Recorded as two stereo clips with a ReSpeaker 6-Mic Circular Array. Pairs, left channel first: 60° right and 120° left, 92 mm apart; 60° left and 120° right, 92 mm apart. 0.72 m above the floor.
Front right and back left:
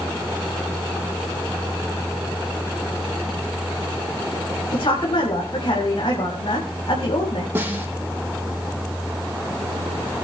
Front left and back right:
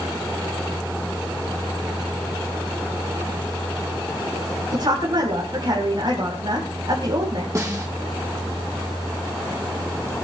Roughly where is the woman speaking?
Right.